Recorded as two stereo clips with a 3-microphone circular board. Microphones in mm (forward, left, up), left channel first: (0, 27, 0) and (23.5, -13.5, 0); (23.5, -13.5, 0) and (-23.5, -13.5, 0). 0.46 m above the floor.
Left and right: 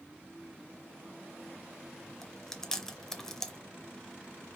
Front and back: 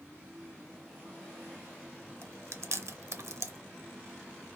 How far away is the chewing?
About 0.6 m.